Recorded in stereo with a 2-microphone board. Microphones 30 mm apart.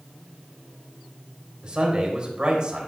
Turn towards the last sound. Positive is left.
turn(degrees=-30)  # may be behind; listen again after turning